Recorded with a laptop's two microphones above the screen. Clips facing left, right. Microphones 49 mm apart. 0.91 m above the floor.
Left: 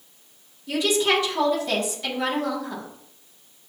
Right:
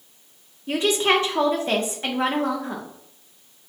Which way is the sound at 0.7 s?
35° right (ahead or behind).